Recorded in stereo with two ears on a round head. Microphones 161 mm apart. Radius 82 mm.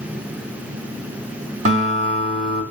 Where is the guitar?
45° right (ahead or behind), 1.5 m.